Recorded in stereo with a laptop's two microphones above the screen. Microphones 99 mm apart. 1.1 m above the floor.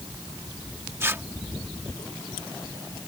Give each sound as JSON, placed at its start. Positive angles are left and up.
{"t": 1.0, "sound": "tearing paper", "side_deg": -25}